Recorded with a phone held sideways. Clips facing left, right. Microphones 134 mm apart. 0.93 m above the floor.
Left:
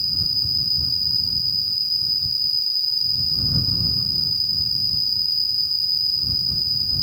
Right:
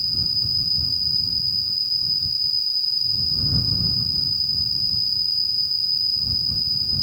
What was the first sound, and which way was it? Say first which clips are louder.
An insect: even; 45° right (ahead or behind).